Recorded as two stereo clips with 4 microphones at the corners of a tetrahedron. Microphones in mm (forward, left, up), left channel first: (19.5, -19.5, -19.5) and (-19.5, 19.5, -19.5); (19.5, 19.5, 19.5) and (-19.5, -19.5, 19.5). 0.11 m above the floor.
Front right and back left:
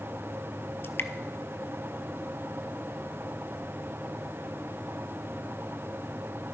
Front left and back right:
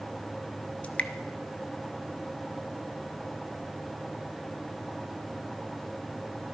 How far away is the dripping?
About 0.7 m.